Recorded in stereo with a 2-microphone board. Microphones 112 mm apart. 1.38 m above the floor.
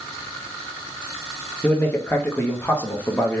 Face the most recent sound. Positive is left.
turn(degrees=15)  # may be behind; listen again after turning